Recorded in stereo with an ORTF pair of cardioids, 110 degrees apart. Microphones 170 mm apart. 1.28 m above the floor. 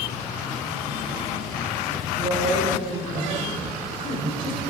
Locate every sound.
2.2 s a woman speaking: 35° right, 6 m